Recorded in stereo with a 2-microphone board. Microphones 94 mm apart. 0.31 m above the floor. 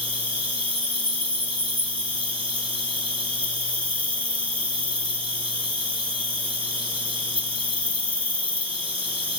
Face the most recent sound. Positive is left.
turn(degrees=-70)  # may be behind; listen again after turning